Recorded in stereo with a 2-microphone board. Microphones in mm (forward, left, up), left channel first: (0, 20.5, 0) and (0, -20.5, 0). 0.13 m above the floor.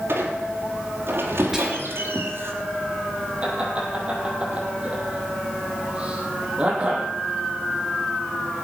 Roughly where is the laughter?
Right.